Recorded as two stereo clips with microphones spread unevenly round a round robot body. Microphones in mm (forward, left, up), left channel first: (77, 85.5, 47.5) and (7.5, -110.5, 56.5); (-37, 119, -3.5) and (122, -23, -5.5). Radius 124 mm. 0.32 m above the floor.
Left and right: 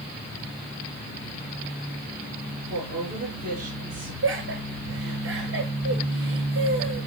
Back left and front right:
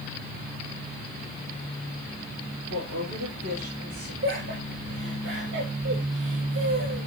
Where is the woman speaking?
55° right, 5 m.